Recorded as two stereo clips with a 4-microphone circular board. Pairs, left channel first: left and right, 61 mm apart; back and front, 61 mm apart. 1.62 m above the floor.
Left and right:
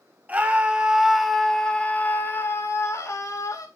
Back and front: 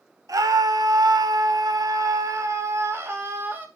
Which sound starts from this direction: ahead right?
A scream, at 0.3 s.